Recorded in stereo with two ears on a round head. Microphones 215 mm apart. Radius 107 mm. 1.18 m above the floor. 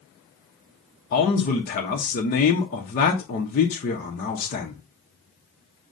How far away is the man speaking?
About 0.7 m.